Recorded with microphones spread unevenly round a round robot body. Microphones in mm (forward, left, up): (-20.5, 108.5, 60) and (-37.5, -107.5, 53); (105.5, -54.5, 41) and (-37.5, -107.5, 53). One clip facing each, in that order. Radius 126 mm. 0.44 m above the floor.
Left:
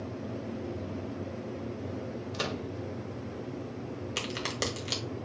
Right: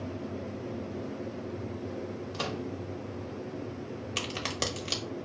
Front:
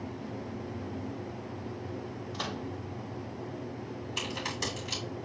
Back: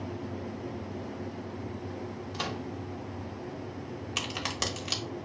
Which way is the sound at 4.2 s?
175° left.